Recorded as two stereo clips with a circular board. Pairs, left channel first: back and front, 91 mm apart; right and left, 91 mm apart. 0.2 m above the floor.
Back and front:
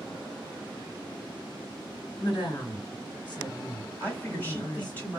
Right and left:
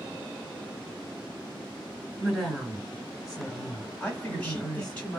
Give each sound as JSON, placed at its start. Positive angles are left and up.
{"t": 2.2, "sound": "a woman speaking", "azimuth_deg": 175, "distance_m": 2.5}
{"t": 4.0, "sound": "a man speaking", "azimuth_deg": -145, "distance_m": 1.3}